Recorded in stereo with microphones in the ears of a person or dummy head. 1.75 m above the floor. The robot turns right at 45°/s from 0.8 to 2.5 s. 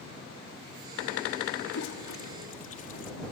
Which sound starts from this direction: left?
A toilet flushing, at 1.7 s.